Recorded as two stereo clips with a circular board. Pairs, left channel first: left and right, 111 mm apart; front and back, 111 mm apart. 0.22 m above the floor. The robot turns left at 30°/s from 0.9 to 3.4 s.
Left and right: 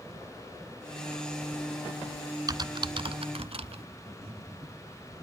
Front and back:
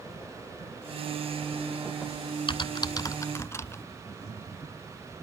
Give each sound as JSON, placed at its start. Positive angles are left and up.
{"t": 2.5, "sound": "typing on a keyboard", "azimuth_deg": -40, "distance_m": 0.7}
{"t": 4.1, "sound": "breathing", "azimuth_deg": -65, "distance_m": 7.5}